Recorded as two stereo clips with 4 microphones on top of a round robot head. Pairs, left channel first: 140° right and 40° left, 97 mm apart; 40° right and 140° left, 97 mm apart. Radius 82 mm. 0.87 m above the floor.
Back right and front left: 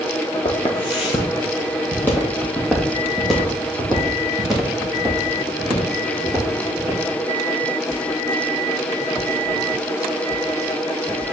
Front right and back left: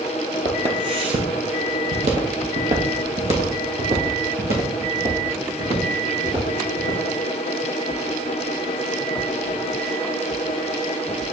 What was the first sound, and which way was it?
Footsteps, 165° right.